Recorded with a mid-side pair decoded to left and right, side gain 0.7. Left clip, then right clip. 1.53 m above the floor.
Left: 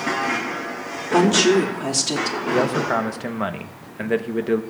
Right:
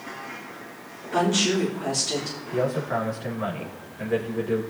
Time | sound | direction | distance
1.1 | a woman speaking | 45° left | 2.5 m
2.5 | a man speaking | 45° left | 1.3 m